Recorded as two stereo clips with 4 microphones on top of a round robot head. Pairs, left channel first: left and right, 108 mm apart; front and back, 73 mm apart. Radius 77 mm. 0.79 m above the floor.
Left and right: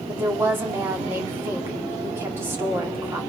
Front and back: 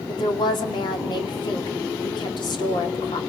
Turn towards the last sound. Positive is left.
turn(degrees=-20)